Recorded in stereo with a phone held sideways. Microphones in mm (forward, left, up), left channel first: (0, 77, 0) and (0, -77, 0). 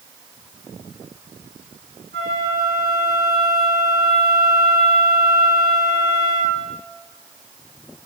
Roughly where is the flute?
Right.